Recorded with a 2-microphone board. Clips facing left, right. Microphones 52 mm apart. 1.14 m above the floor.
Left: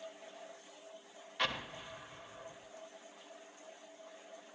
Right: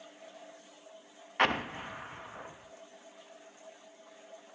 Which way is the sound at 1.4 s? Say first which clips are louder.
Right 9 dB; 50° right (ahead or behind).